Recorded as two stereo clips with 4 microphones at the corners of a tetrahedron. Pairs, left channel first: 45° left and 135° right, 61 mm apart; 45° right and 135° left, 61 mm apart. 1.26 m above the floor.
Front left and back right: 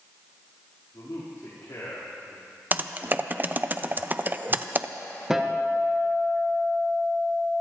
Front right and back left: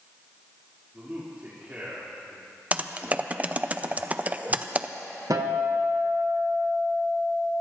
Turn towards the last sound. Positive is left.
turn(degrees=145)